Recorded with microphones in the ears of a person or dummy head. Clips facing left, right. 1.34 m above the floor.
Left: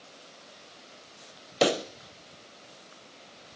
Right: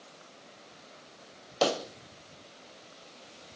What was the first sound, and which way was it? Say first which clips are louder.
A pop: left 3 dB; 30° left (ahead or behind).